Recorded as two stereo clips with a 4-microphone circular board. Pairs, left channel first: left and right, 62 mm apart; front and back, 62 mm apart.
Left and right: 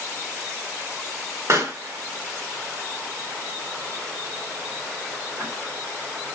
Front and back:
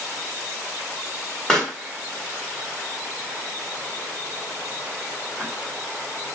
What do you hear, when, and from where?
1.5 s a pop: 70° right, 1.8 m